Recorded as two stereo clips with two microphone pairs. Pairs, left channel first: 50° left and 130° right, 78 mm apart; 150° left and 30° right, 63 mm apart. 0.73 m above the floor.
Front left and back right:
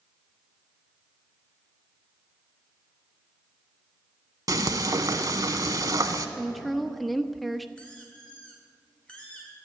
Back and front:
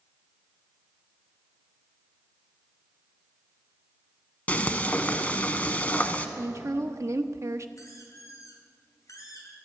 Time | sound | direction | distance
4.5 | frying | 150° right | 1.0 m
6.4 | a woman speaking | 40° right | 0.8 m
7.8 | a squeak | 130° left | 3.5 m